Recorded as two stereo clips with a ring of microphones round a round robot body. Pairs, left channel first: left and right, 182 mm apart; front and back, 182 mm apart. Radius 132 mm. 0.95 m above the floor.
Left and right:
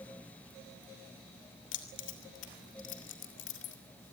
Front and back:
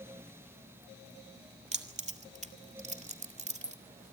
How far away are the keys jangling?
About 2 m.